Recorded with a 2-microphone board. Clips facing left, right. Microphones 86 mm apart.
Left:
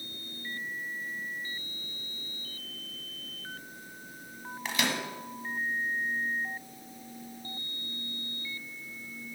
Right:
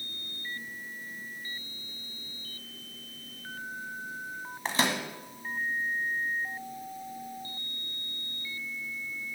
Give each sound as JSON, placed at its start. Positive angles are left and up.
{"t": 4.7, "sound": "a microwave", "side_deg": -35, "distance_m": 1.3}